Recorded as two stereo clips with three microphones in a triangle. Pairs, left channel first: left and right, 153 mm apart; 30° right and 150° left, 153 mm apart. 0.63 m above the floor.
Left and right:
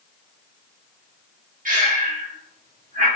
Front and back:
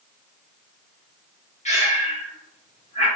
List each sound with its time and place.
1.6 s breathing: 70° right, 1.1 m